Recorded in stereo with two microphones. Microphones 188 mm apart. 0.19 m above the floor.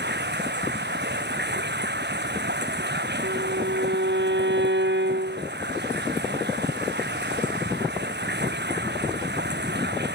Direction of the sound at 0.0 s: 60° right (ahead or behind).